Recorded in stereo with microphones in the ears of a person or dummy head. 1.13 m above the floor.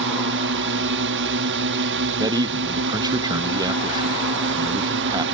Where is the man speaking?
20° right (ahead or behind).